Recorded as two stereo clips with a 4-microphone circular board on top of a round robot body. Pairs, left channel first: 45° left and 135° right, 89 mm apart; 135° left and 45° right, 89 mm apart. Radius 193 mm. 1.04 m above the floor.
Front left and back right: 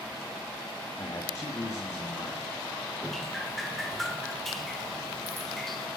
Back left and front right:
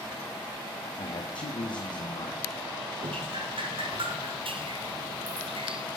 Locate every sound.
1.0 s a man speaking: 105° left, 1.8 m
3.0 s dripping: 45° right, 1.5 m